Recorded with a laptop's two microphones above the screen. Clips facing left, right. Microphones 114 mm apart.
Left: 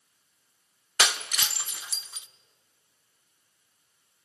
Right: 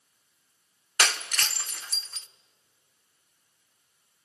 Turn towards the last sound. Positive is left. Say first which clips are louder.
# even
turn(degrees=10)  # may be behind; listen again after turning